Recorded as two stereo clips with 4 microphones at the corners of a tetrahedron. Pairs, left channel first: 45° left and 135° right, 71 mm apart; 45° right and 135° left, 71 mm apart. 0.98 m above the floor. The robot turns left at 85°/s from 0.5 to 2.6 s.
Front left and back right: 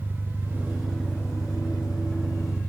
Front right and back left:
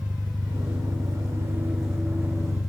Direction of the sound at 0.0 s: 165° left.